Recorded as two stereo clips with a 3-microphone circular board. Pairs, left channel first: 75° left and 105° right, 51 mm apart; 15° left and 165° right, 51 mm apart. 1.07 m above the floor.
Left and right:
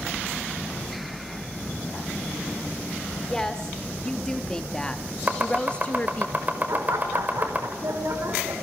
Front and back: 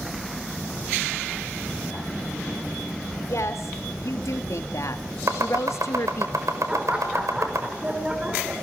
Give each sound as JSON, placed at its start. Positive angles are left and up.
{"t": 3.3, "sound": "a woman speaking", "azimuth_deg": -5, "distance_m": 3.5}
{"t": 5.3, "sound": "chopping", "azimuth_deg": -160, "distance_m": 5.0}
{"t": 6.7, "sound": "laughter", "azimuth_deg": -100, "distance_m": 5.0}